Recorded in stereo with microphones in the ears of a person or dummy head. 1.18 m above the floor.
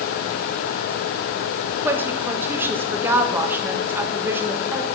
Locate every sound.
1.8 s a woman speaking: 10° right (ahead or behind), 1.3 m